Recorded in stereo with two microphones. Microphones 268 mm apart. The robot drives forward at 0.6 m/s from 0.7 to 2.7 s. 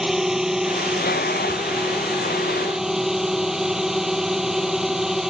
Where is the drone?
Centre (ahead or behind).